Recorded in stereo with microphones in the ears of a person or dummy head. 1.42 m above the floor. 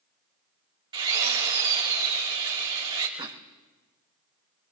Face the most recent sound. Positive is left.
turn(degrees=-25)  # may be behind; listen again after turning